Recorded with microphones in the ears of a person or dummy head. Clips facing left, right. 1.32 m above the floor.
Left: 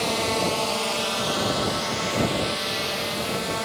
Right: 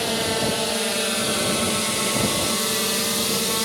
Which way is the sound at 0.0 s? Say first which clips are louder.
Right 1 dB; 10° right (ahead or behind).